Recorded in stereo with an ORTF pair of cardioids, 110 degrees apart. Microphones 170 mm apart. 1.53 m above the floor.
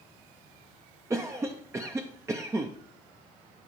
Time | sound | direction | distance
1.1 | a cough | 20° right | 0.6 m